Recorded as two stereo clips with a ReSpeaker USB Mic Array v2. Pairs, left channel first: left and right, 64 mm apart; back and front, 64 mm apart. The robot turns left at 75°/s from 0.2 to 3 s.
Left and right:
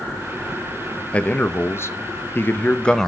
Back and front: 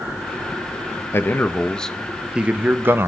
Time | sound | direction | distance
1.1 | a man speaking | 155° left | 0.6 m